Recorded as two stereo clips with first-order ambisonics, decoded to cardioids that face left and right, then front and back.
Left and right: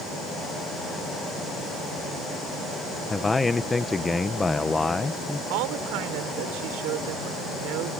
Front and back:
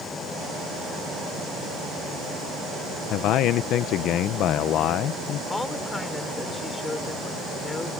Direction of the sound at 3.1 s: 10° left.